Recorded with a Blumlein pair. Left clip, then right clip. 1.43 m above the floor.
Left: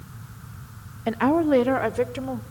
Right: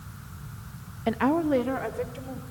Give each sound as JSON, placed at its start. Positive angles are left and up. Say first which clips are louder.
{"t": 1.1, "sound": "a woman speaking", "louder": "left 4 dB", "azimuth_deg": 5, "distance_m": 0.6}